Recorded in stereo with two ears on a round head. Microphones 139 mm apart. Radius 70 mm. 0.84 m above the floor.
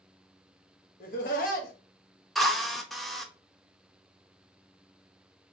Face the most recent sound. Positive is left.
turn(degrees=0)  # may be behind; listen again after turning